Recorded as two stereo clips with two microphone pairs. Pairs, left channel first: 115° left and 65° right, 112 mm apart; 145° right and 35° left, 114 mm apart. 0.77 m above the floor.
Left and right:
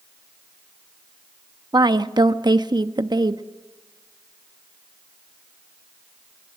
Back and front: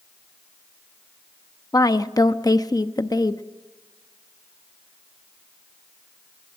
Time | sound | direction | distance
1.7 | a woman speaking | 100° right | 0.8 m